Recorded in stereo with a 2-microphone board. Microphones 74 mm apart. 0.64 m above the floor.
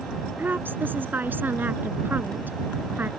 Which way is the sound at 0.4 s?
25° right (ahead or behind).